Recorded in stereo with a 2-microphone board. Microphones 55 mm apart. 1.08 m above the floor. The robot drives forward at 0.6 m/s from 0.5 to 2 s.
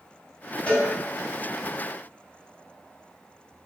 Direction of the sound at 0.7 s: 25° left (ahead or behind).